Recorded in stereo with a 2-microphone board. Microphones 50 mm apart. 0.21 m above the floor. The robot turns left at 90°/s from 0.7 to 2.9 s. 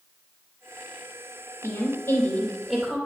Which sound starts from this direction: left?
A woman speaking, at 1.6 s.